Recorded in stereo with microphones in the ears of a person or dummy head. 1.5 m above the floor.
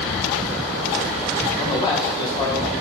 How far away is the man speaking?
About 2 m.